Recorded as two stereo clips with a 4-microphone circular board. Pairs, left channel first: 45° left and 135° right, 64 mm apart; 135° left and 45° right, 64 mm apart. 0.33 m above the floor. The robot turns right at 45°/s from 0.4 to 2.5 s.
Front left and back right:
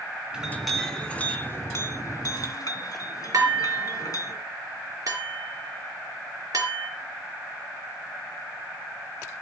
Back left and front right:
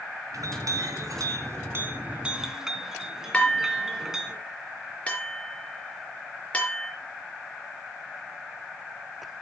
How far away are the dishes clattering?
About 4 m.